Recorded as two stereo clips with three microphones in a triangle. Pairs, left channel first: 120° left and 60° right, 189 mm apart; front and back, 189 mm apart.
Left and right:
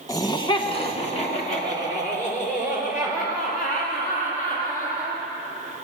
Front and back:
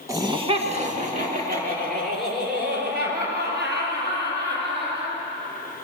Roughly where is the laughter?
Behind left.